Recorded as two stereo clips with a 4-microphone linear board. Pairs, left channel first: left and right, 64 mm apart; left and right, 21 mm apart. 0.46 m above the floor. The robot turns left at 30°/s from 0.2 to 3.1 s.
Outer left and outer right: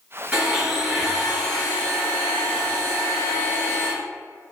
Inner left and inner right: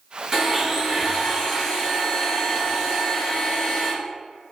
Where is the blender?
150° right, 1.2 m; by 3.9 s 125° left, 1.2 m.